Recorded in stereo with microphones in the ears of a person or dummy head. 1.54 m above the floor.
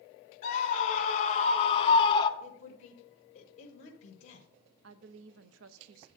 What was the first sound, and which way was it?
A scream, 50° left (ahead or behind).